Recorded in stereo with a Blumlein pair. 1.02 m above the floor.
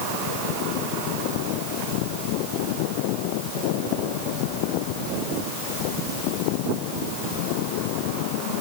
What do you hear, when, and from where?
Only background noise.